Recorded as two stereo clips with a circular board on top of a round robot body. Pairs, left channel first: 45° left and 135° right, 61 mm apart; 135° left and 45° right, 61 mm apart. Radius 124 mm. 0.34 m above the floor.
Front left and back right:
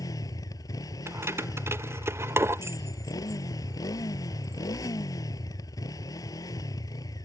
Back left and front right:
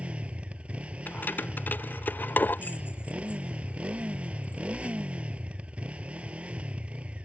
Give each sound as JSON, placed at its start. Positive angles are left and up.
{"t": 0.0, "sound": "a motorcycle", "azimuth_deg": 25}
{"t": 1.1, "sound": "keys jangling", "azimuth_deg": -170}